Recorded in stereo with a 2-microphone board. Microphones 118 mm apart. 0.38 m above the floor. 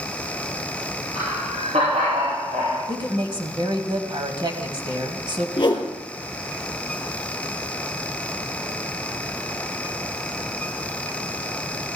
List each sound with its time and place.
1.1 s laughter: 70° right (ahead or behind), 8.5 m; by 2.8 s 65° right (ahead or behind), 8 m
2.9 s a woman speaking: 45° right (ahead or behind), 1.9 m
5.6 s a whoosh: 40° left (ahead or behind), 3.5 m